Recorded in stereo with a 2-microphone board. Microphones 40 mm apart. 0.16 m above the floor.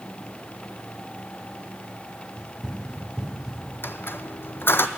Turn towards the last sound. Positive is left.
turn(degrees=60)  # may be behind; listen again after turning